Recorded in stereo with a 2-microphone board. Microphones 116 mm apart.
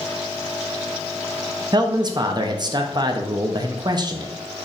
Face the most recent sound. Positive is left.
turn(degrees=-40)  # may be behind; listen again after turning